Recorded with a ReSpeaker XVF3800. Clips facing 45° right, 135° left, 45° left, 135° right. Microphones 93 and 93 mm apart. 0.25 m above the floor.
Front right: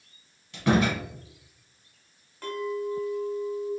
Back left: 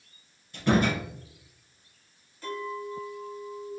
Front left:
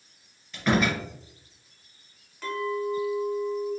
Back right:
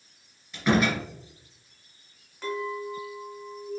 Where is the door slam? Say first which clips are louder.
Front right 1 dB, back right 1 dB; 45° right, 2 m.